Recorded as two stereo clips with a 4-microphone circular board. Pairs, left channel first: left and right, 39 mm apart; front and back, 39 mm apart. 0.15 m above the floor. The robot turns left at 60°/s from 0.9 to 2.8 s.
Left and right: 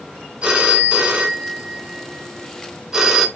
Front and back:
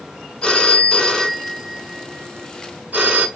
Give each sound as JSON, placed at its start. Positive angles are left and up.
{"t": 0.4, "sound": "a phone ringing", "azimuth_deg": -55, "distance_m": 0.7}